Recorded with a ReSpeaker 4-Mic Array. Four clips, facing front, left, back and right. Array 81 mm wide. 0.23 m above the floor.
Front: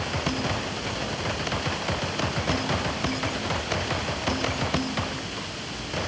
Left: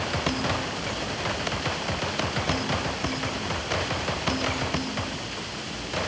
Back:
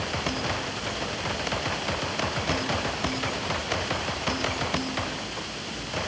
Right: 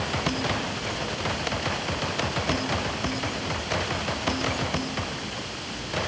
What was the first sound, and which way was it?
Only background noise.